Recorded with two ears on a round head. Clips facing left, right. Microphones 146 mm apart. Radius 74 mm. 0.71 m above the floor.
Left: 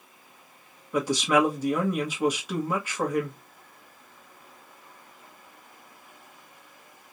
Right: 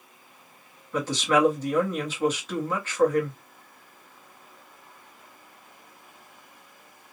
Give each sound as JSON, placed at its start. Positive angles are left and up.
{"t": 0.9, "sound": "a woman speaking", "side_deg": 10, "distance_m": 1.1}